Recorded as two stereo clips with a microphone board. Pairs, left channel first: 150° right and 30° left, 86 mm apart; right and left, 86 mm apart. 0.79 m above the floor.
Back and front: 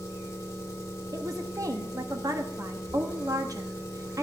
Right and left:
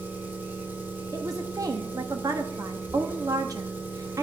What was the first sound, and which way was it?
An engine running, 155° left.